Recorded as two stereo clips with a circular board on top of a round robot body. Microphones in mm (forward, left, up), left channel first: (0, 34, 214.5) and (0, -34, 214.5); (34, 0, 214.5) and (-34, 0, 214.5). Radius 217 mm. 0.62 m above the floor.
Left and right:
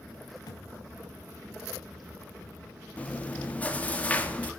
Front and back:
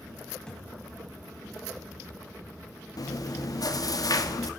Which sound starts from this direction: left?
A thud, at 0.5 s.